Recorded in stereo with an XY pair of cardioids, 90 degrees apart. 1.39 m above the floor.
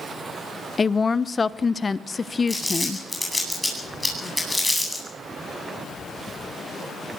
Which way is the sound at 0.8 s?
30° left.